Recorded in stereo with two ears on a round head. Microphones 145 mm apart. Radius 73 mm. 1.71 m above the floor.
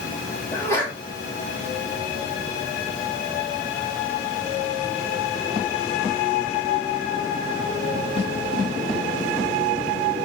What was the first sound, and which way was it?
A sneeze, 15° left (ahead or behind).